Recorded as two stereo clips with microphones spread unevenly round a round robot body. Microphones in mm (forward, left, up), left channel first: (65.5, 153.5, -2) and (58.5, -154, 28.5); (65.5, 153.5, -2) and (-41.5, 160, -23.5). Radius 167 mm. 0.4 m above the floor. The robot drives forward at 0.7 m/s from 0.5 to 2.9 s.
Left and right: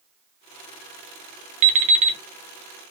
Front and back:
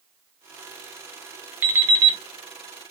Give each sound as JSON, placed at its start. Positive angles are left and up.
{"t": 1.6, "sound": "an alarm clock", "azimuth_deg": -150, "distance_m": 0.7}